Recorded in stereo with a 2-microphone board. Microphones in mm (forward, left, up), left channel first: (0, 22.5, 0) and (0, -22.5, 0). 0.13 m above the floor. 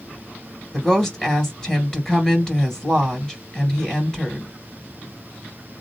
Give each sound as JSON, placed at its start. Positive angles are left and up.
{"t": 0.7, "sound": "a woman speaking", "side_deg": 15, "distance_m": 2.5}